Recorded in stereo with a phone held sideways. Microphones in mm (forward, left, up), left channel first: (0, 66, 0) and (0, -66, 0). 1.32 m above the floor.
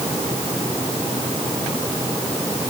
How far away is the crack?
I don't hear a crack.